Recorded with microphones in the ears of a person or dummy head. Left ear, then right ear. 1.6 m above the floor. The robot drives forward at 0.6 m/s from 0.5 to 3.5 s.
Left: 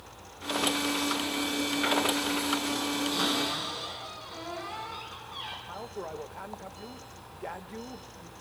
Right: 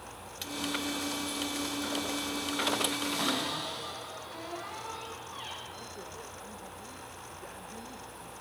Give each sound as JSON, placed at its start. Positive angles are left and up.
{"t": 3.1, "sound": "a cupboard door", "side_deg": -20, "distance_m": 7.0}
{"t": 5.7, "sound": "a woman speaking", "side_deg": 40, "distance_m": 0.6}